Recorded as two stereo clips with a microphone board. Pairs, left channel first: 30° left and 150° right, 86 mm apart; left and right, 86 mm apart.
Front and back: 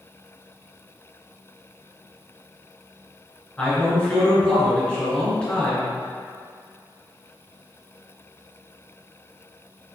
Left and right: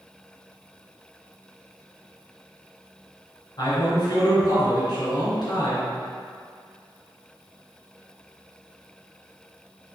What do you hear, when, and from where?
3.6 s a man speaking: 105° left, 1.8 m